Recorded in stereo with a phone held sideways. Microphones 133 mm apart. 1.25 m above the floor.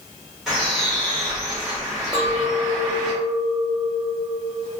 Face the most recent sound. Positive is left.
turn(degrees=-25)  # may be behind; listen again after turning